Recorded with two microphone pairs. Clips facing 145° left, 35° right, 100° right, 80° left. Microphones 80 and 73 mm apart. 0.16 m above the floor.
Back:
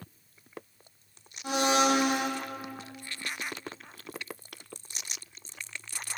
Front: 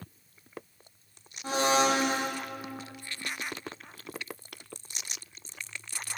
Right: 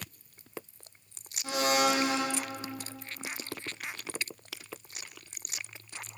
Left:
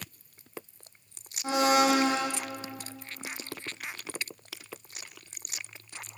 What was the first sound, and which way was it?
A blender, 20° left.